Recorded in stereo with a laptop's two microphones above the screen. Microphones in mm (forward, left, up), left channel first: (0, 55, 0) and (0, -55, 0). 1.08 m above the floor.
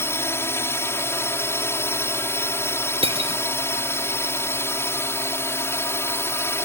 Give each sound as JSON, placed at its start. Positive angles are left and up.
{"t": 0.0, "sound": "a drone", "side_deg": 25}
{"t": 3.0, "sound": "cutlery clinking", "side_deg": -60}